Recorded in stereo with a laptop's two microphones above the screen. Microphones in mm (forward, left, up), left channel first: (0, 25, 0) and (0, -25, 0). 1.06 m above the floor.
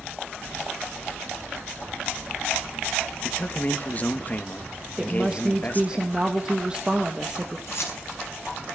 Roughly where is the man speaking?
Left.